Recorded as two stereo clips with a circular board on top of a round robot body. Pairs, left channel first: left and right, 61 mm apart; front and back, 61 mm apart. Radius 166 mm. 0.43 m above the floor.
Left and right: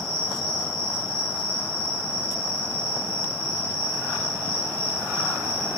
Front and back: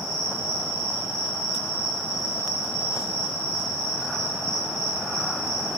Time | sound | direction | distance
0.0 | an insect | 150° left | 0.8 m